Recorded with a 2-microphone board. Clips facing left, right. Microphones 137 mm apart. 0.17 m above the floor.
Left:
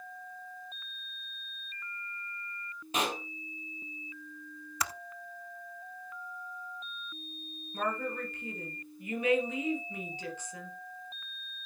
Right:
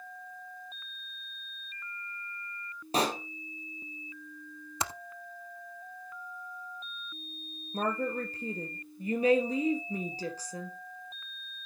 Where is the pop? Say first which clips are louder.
Right 4 dB; 35° right (ahead or behind), 1.8 m.